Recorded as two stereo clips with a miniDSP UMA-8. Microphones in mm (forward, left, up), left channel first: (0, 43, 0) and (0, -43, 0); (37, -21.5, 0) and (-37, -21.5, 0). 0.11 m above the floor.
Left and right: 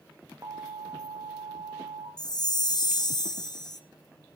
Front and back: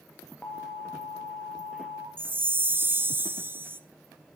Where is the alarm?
60° right, 1.8 m.